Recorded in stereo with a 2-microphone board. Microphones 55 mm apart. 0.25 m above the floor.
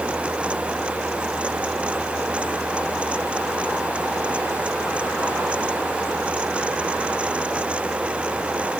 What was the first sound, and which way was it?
Only background noise.